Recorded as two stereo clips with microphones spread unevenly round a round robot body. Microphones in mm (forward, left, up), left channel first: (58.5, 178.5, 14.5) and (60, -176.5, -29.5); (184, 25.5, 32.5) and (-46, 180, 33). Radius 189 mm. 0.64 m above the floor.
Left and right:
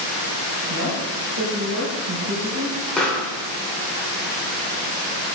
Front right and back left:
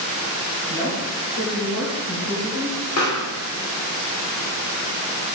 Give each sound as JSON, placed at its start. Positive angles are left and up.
{"t": 0.7, "sound": "a woman speaking", "azimuth_deg": -45, "distance_m": 3.5}
{"t": 3.0, "sound": "a pop", "azimuth_deg": 0, "distance_m": 2.0}